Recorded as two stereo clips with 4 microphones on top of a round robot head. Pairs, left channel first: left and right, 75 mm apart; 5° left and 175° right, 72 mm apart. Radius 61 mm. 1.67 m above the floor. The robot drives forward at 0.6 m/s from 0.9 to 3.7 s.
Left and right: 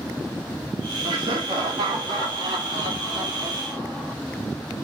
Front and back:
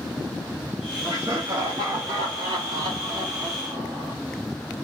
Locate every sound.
1.0 s laughter: 110° right, 1.4 m; by 4.1 s 145° right, 2.5 m